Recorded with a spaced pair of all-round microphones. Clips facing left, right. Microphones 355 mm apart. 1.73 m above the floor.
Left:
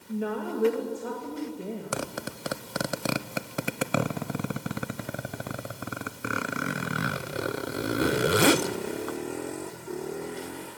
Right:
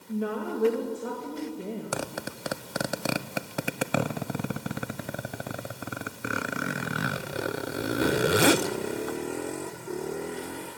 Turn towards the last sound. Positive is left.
turn(degrees=0)  # may be behind; listen again after turning